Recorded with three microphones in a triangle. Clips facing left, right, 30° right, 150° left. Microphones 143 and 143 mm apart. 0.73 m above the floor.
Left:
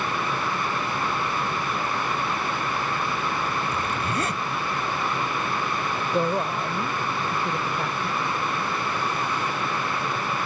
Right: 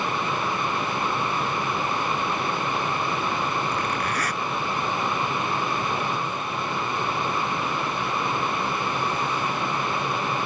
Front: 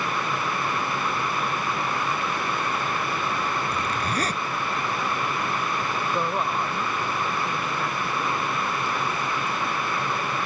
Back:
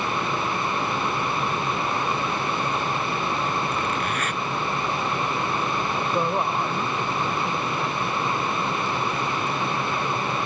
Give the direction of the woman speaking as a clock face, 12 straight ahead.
10 o'clock.